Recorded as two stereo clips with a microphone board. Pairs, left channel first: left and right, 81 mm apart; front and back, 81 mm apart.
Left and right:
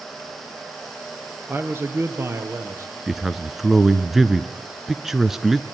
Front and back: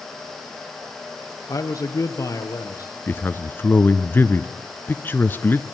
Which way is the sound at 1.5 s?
35° right.